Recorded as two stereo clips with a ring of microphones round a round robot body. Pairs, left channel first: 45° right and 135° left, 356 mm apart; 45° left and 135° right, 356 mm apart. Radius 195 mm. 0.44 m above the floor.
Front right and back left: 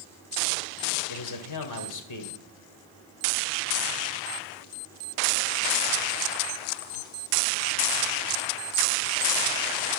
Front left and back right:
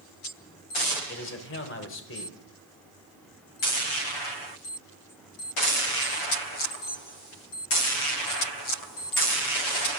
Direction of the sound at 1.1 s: 10° right.